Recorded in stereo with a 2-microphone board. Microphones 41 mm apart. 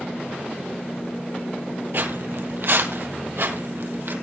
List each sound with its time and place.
1.9 s footsteps: 60° right (ahead or behind), 2 m; by 4.1 s 65° right (ahead or behind), 2.5 m